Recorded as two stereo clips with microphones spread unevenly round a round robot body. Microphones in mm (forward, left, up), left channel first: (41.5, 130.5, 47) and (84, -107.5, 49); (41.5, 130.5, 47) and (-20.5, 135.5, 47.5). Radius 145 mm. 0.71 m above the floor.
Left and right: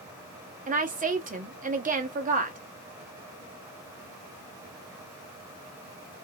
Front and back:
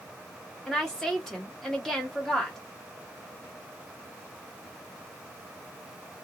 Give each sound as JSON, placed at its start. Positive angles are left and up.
{"t": 0.7, "sound": "a woman speaking", "azimuth_deg": -85, "distance_m": 1.2}